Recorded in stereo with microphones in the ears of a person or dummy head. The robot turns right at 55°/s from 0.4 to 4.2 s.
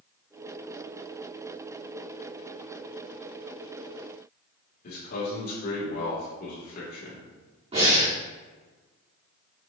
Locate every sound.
4.8 s a man speaking: 55° left (ahead or behind), 2 m
7.7 s breathing: 35° right (ahead or behind), 3 m